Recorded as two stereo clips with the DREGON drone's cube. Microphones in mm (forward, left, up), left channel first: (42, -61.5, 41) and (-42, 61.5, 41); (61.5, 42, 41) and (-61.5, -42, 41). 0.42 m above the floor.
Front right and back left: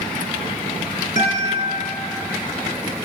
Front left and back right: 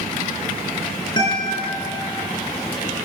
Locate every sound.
1.2 s a guitar: 25° right, 3.5 m